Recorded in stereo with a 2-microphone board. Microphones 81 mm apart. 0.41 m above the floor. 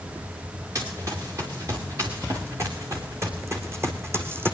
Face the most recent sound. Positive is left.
turn(degrees=-30)  # may be behind; listen again after turning